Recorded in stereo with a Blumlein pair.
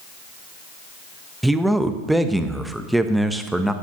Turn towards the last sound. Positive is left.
turn(degrees=-5)